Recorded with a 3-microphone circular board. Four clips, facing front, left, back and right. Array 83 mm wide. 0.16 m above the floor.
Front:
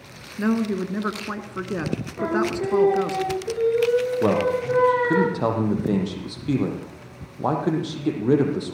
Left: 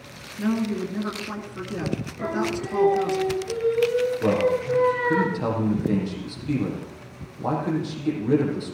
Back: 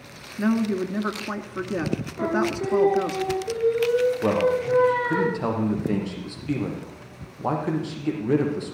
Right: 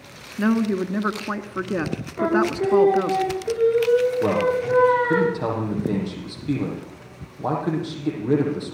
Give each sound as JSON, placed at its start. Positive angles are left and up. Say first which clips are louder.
{"t": 0.4, "sound": "a woman speaking", "louder": "right 4 dB, even", "azimuth_deg": -85, "distance_m": 2.0}
{"t": 2.2, "sound": "singing", "louder": "right 8 dB, front 1 dB", "azimuth_deg": -70, "distance_m": 9.5}
{"t": 4.2, "sound": "a man speaking", "louder": "right 1 dB, front 1 dB", "azimuth_deg": -15, "distance_m": 6.0}